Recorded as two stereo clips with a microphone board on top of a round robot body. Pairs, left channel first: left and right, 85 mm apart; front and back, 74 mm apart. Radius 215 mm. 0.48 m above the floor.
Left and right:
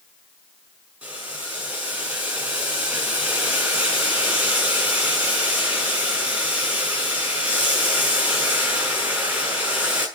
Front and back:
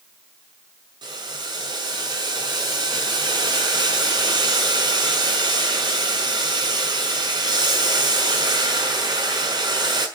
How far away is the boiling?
About 6 m.